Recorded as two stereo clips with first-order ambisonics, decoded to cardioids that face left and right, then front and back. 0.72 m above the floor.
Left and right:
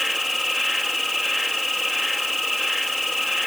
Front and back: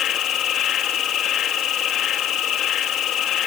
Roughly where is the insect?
Ahead.